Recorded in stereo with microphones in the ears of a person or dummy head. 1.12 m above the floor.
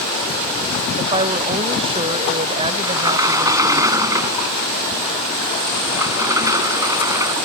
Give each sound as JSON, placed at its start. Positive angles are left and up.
{"t": 1.0, "sound": "a woman speaking", "side_deg": -30}
{"t": 2.8, "sound": "a sliding door", "side_deg": -20}